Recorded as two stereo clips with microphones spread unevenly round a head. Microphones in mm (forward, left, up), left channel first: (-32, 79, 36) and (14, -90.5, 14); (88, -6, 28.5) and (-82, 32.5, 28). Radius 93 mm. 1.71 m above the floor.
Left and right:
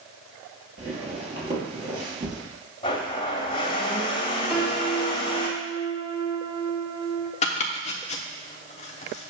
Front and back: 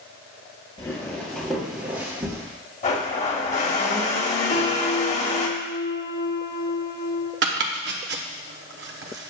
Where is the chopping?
150° left, 0.8 m.